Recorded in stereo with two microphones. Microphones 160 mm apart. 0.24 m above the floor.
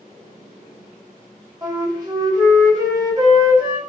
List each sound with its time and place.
1.6 s a flute: 25° right (ahead or behind), 0.9 m